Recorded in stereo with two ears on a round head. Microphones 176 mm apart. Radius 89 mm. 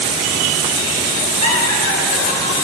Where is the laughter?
45° left (ahead or behind), 6.5 m.